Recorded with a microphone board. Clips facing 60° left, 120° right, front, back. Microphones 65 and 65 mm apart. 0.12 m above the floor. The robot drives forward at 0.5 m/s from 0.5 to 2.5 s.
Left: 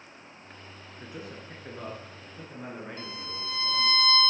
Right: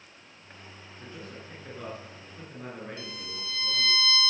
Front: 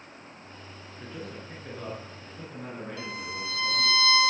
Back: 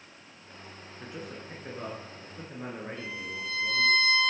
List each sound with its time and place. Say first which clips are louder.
1.0 s a man speaking: left 2 dB, front 1 dB; 110° left, 1.8 m; by 4.0 s 140° left, 2 m
3.0 s a violin: left 2 dB, front 2 dB; 10° left, 1.2 m